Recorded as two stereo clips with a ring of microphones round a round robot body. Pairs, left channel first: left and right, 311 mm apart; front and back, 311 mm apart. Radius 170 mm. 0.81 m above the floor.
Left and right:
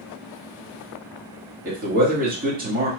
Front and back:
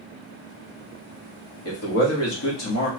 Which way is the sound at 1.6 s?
35° right.